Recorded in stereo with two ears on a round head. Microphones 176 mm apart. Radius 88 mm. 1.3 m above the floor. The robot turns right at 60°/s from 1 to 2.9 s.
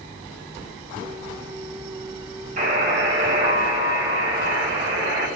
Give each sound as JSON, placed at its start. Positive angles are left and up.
{"t": 2.6, "sound": "a buzzer", "side_deg": -45, "distance_m": 4.5}